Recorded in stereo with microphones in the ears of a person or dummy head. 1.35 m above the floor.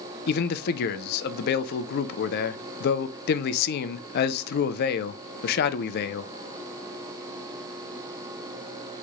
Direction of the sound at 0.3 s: 50° left (ahead or behind).